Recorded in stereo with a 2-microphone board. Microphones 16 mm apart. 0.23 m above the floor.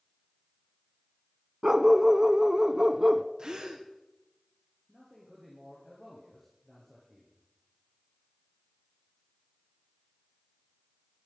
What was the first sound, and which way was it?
A dog barking, 35° right (ahead or behind).